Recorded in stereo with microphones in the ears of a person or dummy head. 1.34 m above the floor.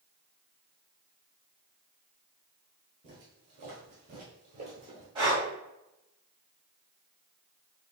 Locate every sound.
3.0 s footsteps: 35° right (ahead or behind), 1.9 m; by 5.0 s 20° right (ahead or behind), 1.4 m
5.2 s breathing: 20° right (ahead or behind), 2 m